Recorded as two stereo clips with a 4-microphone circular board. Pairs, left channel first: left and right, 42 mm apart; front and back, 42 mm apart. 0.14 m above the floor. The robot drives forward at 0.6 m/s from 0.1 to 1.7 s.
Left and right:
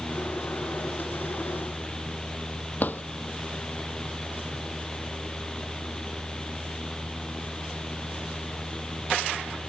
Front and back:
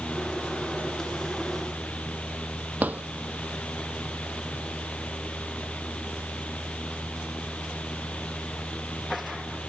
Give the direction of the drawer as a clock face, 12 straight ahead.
8 o'clock.